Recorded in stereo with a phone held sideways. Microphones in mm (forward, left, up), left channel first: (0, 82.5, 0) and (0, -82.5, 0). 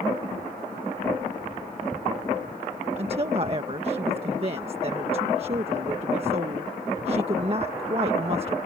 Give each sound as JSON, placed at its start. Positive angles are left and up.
{"t": 3.0, "sound": "a woman speaking", "side_deg": -40}